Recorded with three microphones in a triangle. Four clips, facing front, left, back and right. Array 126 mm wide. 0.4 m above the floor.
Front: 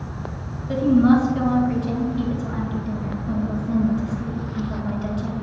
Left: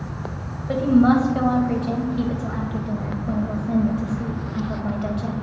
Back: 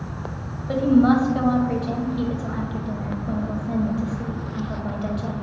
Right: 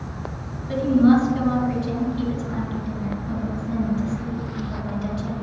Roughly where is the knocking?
No knocking in this recording.